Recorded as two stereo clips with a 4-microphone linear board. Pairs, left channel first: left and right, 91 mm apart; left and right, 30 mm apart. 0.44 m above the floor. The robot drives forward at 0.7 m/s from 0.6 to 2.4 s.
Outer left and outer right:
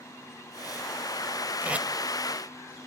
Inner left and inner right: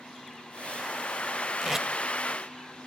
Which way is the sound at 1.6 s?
20° right (ahead or behind).